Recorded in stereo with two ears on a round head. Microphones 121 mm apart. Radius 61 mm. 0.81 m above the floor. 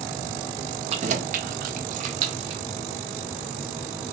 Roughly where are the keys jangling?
Right.